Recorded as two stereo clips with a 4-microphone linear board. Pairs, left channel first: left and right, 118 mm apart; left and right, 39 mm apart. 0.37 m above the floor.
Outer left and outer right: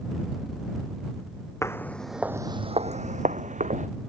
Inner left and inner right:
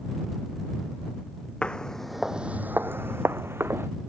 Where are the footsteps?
20° left (ahead or behind); by 3.9 s 75° right (ahead or behind).